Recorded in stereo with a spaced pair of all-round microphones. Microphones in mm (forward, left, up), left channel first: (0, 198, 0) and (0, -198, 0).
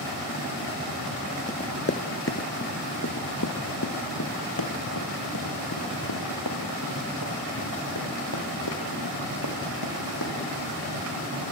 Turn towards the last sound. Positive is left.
turn(degrees=75)  # may be behind; listen again after turning